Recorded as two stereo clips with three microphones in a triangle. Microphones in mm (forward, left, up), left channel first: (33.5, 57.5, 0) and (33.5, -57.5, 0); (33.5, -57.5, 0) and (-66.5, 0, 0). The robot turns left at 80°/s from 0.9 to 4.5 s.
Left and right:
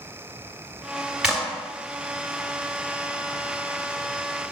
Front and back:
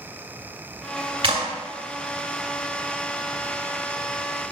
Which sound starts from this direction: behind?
A clap, at 1.2 s.